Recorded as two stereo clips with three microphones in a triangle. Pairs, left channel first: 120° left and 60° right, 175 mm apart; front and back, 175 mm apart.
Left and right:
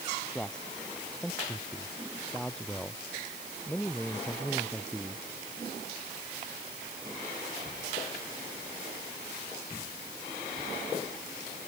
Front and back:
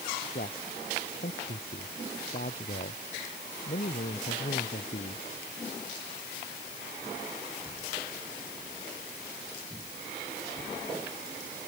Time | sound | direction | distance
0.3 | a man speaking | 35° left | ?